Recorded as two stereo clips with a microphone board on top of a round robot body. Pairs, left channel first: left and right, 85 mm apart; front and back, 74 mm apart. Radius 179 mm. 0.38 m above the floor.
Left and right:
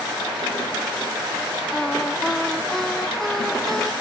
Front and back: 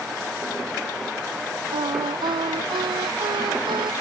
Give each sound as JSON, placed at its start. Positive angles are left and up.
{"t": 1.7, "sound": "singing", "azimuth_deg": 175}